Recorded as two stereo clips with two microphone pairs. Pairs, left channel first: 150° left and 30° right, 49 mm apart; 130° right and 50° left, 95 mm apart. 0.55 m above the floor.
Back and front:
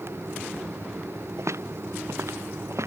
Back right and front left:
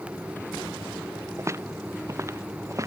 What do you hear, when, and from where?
1.4 s footsteps: 10° right; by 2.9 s 5° right